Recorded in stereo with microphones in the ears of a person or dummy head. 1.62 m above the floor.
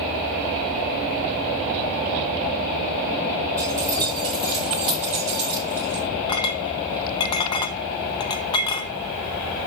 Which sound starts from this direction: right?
Keys jangling, at 3.6 s.